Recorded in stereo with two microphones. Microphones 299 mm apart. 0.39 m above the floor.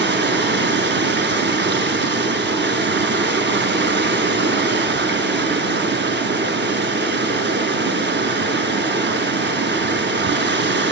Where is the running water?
40° right (ahead or behind), 0.8 m.